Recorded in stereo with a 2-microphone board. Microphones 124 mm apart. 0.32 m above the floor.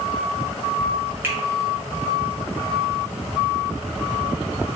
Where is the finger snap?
15° right (ahead or behind), 0.9 m.